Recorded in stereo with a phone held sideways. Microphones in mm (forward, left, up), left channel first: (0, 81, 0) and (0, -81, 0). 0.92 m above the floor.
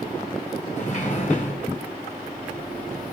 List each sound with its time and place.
0.8 s a sliding door: 50° left (ahead or behind), 4 m